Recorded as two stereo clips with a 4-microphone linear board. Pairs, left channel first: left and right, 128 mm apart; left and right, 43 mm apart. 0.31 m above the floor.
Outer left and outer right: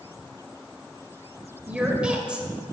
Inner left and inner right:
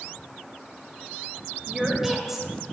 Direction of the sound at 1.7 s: 10° right (ahead or behind).